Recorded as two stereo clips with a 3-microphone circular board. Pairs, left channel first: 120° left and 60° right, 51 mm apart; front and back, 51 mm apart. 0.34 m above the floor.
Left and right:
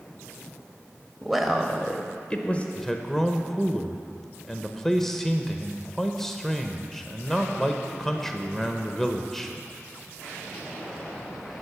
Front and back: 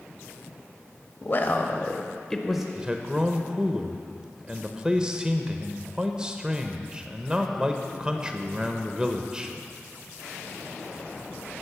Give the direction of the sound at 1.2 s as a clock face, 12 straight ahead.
11 o'clock.